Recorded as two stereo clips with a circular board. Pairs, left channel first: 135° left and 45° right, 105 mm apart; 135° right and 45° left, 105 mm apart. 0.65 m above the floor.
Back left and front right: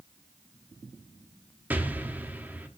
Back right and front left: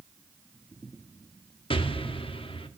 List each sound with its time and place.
1.7 s an explosion: 115° right, 0.7 m